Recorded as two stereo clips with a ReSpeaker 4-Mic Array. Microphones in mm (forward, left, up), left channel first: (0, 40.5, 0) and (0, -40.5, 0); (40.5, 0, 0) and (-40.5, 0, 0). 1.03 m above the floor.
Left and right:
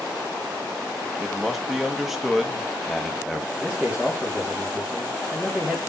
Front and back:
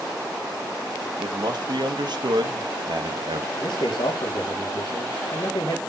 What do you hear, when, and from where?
1.2 s a man speaking: straight behind, 1.6 m
3.6 s a man speaking: 5° right, 2.5 m